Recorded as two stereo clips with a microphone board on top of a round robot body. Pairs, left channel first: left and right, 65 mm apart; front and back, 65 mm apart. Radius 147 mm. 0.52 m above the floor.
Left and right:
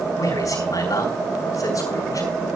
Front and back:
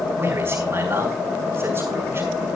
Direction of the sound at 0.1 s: 125° left.